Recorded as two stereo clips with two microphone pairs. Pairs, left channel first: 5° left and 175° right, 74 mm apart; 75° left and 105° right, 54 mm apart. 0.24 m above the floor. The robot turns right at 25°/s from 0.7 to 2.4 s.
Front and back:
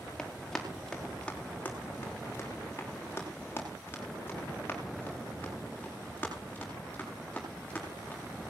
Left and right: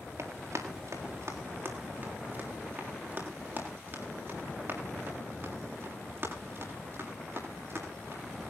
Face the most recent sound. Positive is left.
turn(degrees=-65)